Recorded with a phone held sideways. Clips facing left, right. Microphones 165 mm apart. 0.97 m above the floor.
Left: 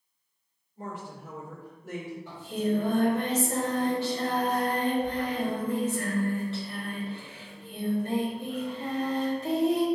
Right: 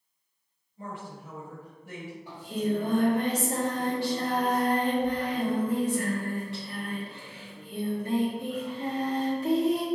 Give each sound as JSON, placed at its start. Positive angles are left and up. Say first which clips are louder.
{"t": 0.8, "sound": "a woman speaking", "louder": "left 1 dB", "side_deg": 45, "distance_m": 1.8}
{"t": 2.3, "sound": "singing", "louder": "even", "side_deg": -15, "distance_m": 1.6}